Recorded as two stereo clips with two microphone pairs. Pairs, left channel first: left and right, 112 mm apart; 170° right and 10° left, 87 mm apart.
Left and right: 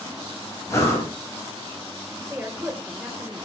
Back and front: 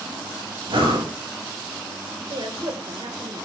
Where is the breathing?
25° left, 6.5 m.